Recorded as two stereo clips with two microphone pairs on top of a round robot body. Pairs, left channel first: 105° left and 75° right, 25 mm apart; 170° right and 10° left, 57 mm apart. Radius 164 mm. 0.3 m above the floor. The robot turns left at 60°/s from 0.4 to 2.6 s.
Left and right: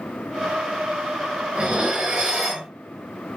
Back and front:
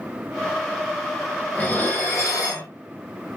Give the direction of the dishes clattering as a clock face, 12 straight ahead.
3 o'clock.